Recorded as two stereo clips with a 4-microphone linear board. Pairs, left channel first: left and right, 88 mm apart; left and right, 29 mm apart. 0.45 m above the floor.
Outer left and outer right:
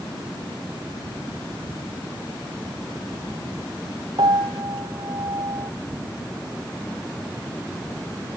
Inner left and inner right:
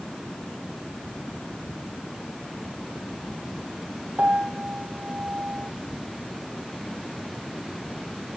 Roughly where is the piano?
Right.